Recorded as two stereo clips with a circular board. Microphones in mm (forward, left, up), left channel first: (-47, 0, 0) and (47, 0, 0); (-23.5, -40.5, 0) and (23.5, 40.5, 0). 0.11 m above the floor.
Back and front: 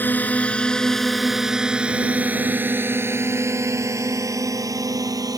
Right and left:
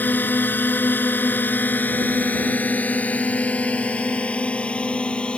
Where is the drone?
150° right; by 5.4 s 40° right.